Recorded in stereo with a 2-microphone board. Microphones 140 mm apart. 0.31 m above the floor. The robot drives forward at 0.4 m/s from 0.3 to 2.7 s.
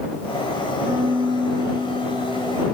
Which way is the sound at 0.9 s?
35° right (ahead or behind).